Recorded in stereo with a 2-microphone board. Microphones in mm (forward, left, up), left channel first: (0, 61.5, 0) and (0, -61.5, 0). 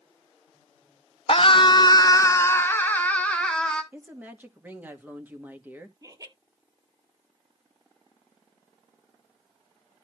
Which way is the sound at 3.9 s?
15° right (ahead or behind).